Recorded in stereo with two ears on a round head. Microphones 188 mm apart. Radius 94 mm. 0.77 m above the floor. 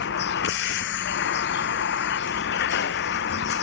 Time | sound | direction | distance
0.0 | a vehicle | 55° left (ahead or behind) | ?